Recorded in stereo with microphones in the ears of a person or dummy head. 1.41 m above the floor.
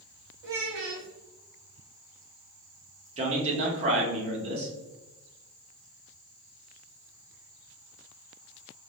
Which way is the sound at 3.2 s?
40° right (ahead or behind).